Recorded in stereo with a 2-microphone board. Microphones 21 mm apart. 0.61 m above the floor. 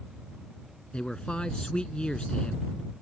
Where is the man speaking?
55° left (ahead or behind).